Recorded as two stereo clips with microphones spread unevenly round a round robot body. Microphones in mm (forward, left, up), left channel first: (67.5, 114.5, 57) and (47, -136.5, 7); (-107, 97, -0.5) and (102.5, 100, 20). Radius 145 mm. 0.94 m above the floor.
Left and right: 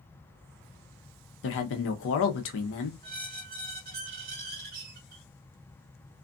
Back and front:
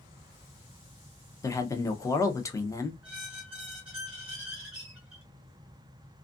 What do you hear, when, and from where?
1.4 s a man speaking: 115° left, 0.6 m
3.0 s a squeak: 65° right, 0.6 m